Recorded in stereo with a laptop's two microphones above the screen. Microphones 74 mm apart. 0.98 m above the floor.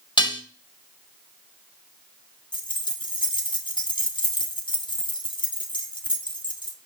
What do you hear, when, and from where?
0.2 s dishes clattering: 85° left, 0.8 m
2.5 s keys jangling: 80° left, 0.6 m